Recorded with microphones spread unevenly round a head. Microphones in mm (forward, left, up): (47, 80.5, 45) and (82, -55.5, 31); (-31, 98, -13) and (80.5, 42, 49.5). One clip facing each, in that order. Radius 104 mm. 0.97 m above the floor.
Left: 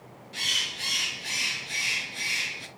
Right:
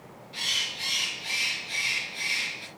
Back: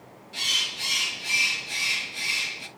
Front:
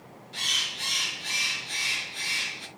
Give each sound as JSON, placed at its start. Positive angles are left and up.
{"t": 0.3, "sound": "a bird", "azimuth_deg": 65, "distance_m": 3.5}